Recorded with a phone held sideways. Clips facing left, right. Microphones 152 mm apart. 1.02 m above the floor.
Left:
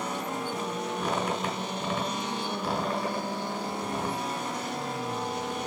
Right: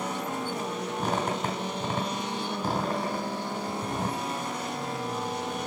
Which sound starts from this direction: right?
A squeak, at 1.0 s.